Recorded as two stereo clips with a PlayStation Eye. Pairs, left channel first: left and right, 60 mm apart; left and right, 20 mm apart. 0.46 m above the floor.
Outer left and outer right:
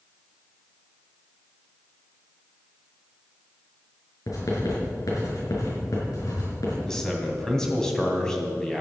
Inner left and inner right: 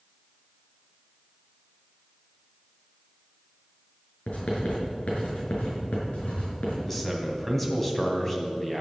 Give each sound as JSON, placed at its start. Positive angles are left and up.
{"t": 4.3, "sound": "writing", "side_deg": 80, "distance_m": 5.5}
{"t": 6.8, "sound": "a man speaking", "side_deg": 10, "distance_m": 3.0}